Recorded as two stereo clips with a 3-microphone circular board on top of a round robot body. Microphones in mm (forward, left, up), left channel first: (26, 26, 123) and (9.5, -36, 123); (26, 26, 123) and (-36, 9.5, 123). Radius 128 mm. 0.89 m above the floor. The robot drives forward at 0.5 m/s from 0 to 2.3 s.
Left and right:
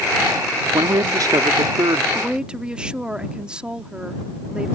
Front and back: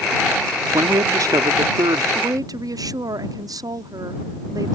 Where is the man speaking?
130° right; by 2.0 s 140° right.